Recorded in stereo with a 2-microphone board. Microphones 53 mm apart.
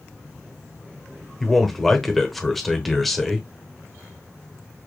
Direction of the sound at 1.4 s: Centre (ahead or behind).